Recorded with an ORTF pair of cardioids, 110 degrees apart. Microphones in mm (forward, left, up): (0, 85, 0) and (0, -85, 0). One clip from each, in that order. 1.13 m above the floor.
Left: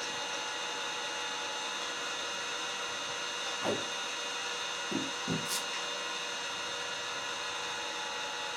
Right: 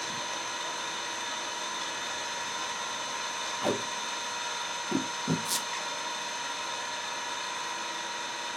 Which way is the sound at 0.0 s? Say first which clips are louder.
Right 2 dB; 25° right.